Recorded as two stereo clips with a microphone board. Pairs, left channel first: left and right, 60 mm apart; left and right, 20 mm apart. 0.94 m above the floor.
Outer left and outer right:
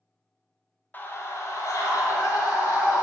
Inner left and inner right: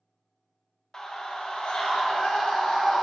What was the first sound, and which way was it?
A scream, 30° left (ahead or behind).